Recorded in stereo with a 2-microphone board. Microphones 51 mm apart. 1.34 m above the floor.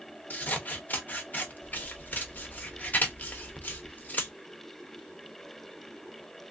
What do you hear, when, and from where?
0.3 s scissors: 35° left (ahead or behind), 0.6 m